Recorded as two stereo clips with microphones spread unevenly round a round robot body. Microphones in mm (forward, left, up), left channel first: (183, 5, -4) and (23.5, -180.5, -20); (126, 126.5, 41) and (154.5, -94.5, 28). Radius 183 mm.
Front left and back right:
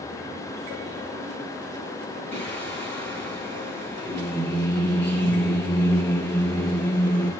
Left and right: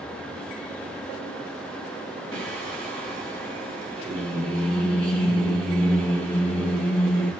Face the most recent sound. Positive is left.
turn(degrees=180)